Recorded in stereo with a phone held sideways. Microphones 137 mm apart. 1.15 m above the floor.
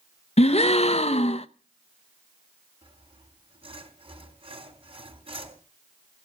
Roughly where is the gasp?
Left.